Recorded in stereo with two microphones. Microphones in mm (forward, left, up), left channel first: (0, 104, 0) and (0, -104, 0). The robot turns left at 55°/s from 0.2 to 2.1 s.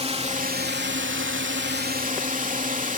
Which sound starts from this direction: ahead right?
A drone, at 0.0 s.